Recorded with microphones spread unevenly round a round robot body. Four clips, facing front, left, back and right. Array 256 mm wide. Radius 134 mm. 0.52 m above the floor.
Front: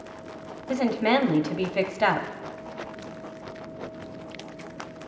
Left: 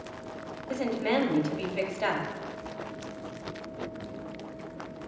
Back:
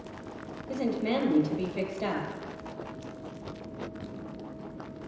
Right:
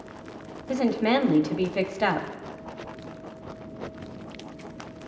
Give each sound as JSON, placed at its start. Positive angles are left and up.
{"t": 0.7, "sound": "a woman speaking", "azimuth_deg": -35, "distance_m": 1.2}